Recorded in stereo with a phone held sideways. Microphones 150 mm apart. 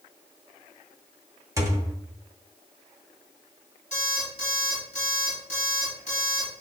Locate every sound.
1.6 s a thud: 20° right (ahead or behind), 0.7 m
3.9 s an alarm clock: 45° left (ahead or behind), 2.5 m